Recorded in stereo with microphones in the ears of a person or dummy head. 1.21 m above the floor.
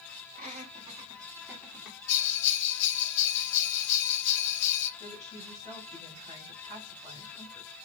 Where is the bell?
55° left (ahead or behind), 0.8 m.